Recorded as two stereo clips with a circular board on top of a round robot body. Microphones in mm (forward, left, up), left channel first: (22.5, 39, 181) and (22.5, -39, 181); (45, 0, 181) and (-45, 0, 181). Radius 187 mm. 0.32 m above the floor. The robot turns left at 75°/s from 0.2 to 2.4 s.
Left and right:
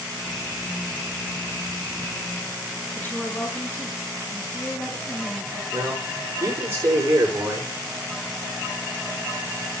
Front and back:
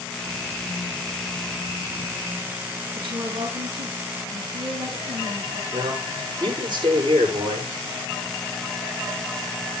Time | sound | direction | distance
3.0 | a woman speaking | 155° left | 5 m
5.7 | a man speaking | 145° right | 9.5 m